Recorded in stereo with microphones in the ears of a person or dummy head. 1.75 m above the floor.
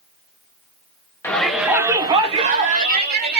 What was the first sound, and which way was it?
A shout, 5° left (ahead or behind).